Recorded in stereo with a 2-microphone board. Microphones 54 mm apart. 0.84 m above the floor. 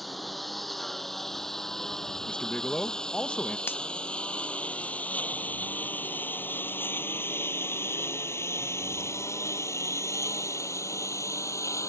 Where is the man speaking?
25° left (ahead or behind).